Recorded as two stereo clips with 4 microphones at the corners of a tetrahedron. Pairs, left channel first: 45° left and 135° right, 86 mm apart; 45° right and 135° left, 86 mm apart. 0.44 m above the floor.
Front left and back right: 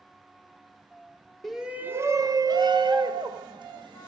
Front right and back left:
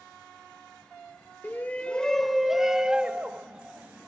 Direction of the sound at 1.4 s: 40° right.